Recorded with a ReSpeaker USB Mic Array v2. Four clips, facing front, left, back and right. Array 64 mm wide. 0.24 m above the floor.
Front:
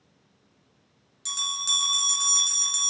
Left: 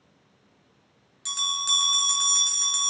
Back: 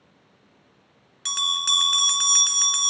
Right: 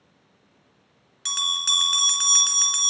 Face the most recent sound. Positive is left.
turn(degrees=-145)